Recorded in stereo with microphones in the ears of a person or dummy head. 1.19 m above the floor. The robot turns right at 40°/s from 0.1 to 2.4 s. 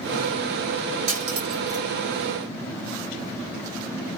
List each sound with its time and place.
1.1 s cutlery clinking: 70° right (ahead or behind), 2 m; by 1.9 s 40° right (ahead or behind), 2 m